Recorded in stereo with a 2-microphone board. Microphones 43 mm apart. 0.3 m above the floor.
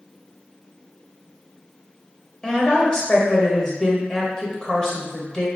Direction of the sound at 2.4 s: 15° left (ahead or behind).